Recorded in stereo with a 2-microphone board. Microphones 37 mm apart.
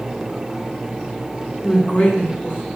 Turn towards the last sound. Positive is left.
turn(degrees=35)  # may be behind; listen again after turning